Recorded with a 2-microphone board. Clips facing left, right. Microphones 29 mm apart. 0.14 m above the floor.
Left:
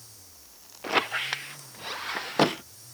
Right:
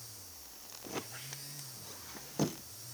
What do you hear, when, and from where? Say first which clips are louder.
0.8 s a squeak: left 17 dB; 70° left (ahead or behind)